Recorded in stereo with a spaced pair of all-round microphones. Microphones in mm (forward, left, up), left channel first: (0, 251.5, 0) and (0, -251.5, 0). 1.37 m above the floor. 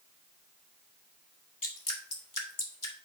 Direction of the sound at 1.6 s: 80° left.